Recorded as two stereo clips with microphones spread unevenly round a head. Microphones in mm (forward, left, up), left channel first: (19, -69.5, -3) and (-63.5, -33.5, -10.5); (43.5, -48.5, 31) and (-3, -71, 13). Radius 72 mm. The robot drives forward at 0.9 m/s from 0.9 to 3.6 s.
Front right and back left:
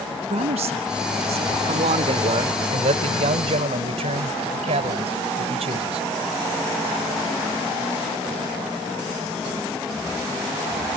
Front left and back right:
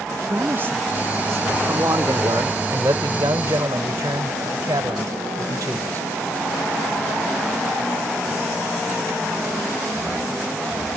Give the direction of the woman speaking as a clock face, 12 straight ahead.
7 o'clock.